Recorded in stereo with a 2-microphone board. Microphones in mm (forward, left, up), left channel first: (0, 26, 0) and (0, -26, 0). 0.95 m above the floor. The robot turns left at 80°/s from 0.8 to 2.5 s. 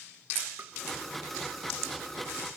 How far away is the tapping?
About 1.1 m.